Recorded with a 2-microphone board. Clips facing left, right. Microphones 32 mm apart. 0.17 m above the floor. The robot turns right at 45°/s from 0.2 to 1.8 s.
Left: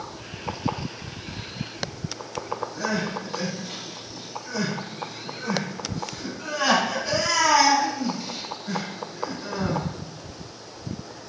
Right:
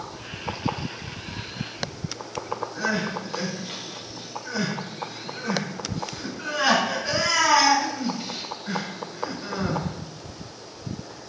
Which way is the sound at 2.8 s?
25° right (ahead or behind).